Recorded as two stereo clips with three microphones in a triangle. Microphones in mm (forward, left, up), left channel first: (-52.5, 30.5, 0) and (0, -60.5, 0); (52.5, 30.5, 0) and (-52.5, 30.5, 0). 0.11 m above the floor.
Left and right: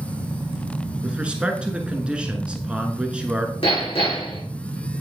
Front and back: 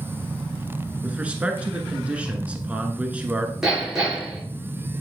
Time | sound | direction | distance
1.0 | a man speaking | 120° right | 1.1 m
3.6 | hammering | 95° left | 4.5 m